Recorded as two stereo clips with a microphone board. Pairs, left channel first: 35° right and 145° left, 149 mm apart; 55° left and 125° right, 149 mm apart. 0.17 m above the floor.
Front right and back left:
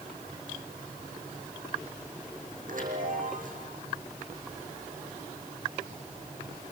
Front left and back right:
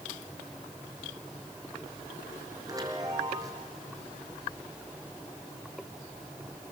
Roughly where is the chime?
Behind.